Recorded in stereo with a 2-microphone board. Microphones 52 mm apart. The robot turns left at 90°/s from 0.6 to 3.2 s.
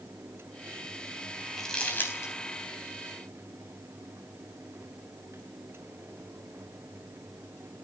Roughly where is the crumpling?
Centre.